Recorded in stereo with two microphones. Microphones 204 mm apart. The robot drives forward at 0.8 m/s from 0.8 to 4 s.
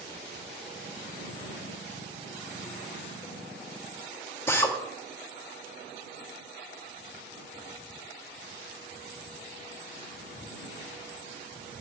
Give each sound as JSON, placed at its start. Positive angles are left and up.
{"t": 4.5, "sound": "a drill", "side_deg": 10, "distance_m": 1.3}